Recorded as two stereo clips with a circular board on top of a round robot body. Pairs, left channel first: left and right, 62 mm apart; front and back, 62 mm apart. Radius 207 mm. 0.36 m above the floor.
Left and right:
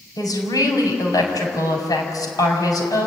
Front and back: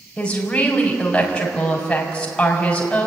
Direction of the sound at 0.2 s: 75° left.